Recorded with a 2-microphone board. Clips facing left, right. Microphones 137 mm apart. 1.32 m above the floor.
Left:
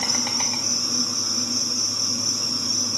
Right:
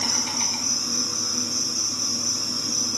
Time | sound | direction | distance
0.0 | an insect | 80° left | 1.7 m